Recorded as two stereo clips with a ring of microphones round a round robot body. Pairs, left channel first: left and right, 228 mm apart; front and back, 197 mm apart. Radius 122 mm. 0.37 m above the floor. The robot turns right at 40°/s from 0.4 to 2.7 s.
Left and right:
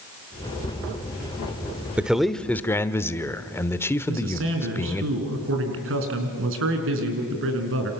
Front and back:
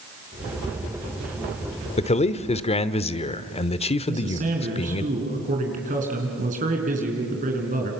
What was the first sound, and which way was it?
A man speaking, 10° right.